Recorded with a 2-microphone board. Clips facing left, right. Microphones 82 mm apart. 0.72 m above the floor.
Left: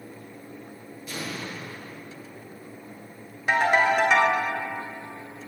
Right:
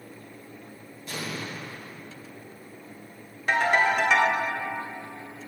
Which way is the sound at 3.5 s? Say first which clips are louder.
Left 2 dB; 10° left (ahead or behind).